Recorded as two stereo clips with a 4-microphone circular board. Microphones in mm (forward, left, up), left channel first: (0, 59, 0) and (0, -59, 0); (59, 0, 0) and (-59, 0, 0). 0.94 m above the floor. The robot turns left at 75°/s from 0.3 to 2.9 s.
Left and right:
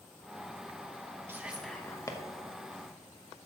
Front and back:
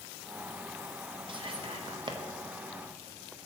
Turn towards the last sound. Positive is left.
turn(degrees=85)